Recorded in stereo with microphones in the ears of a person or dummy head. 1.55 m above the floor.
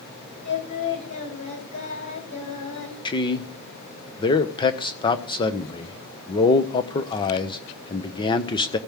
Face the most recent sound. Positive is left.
turn(degrees=25)  # may be behind; listen again after turning